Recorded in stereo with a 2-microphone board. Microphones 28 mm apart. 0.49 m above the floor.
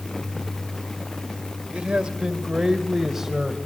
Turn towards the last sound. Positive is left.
turn(degrees=-10)  # may be behind; listen again after turning